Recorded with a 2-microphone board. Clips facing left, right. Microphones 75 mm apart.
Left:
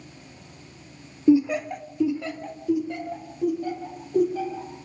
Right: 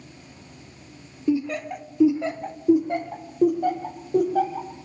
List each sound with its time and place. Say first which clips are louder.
1.3 s laughter: left 5 dB; 20° left (ahead or behind), 0.8 m; by 4.7 s 60° right (ahead or behind), 2 m